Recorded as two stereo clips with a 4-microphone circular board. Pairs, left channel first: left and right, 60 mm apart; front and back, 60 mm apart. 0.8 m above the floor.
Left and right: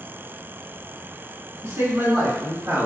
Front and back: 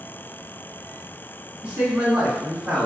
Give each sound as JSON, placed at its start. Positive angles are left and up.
{"t": 1.6, "sound": "a man speaking", "azimuth_deg": -110, "distance_m": 1.8}